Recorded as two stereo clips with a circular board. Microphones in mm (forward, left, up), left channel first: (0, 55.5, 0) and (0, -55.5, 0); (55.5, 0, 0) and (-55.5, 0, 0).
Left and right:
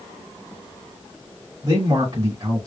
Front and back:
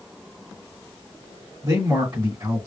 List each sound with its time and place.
1.6 s a man speaking: 115° right, 2.5 m